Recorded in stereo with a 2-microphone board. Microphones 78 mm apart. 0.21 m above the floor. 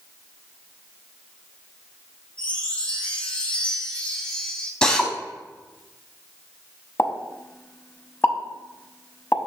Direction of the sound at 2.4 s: 20° left (ahead or behind).